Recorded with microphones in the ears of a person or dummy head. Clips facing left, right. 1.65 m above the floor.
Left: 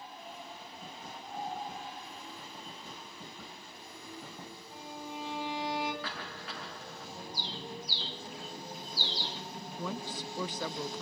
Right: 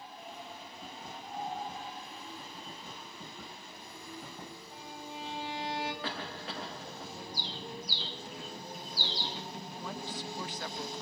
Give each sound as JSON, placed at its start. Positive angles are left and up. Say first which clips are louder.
{"t": 4.7, "sound": "a violin", "louder": "left 4 dB", "side_deg": 15, "distance_m": 9.0}
{"t": 6.0, "sound": "a cough", "louder": "right 3 dB", "side_deg": -25, "distance_m": 2.5}
{"t": 7.3, "sound": "a bird", "louder": "left 2 dB", "side_deg": -40, "distance_m": 4.0}
{"t": 9.8, "sound": "a woman speaking", "louder": "left 3 dB", "side_deg": 80, "distance_m": 1.2}